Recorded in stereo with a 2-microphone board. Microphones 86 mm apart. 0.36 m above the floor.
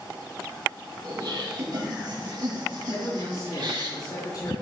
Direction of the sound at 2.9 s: 50° left (ahead or behind).